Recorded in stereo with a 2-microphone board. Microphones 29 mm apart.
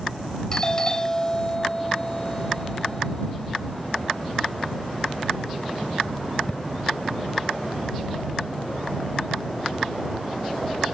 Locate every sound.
0.5 s a doorbell: 25° left (ahead or behind)